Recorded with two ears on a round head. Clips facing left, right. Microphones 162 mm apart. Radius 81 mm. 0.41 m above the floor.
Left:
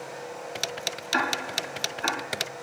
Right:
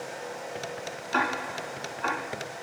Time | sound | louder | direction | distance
1.1 | ticking | even | 20° left (ahead or behind) | 1.4 m